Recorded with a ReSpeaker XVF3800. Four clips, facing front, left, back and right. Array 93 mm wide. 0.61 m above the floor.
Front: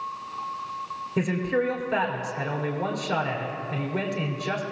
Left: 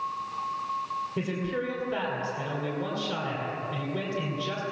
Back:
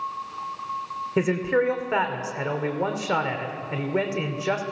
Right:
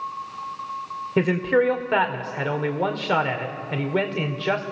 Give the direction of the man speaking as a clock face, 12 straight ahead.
4 o'clock.